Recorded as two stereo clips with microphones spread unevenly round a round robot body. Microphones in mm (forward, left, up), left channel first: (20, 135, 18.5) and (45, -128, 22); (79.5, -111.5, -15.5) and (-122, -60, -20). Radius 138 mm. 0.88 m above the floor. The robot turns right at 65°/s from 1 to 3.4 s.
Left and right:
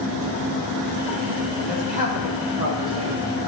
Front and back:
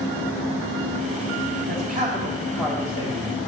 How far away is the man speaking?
About 2.5 m.